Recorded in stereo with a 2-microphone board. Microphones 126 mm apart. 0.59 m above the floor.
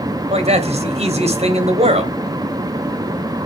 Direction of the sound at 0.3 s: 60° right (ahead or behind).